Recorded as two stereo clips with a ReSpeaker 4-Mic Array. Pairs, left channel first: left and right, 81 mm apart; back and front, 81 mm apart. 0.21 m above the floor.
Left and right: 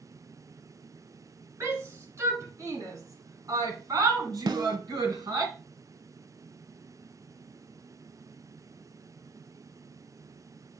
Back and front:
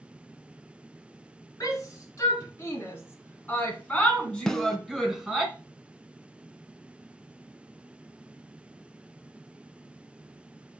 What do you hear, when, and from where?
1.6 s a shout: 140° right, 3 m; by 5.5 s 80° right, 2.5 m
4.5 s a snare drum: 100° right, 0.7 m